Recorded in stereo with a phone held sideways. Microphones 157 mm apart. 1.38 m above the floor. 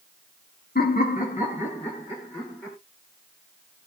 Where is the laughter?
80° left, 0.8 m; by 2.8 s 25° left (ahead or behind), 1.8 m.